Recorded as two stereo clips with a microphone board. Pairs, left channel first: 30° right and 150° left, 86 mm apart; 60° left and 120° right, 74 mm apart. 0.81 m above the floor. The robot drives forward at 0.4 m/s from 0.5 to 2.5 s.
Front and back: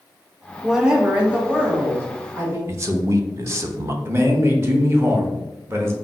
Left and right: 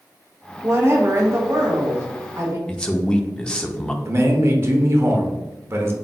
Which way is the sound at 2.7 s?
130° left.